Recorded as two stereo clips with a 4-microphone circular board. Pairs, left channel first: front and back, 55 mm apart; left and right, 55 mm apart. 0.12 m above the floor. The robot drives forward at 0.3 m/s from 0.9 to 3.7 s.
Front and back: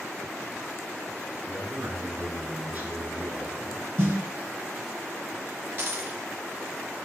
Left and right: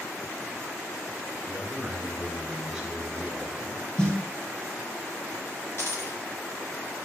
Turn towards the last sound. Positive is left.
turn(degrees=130)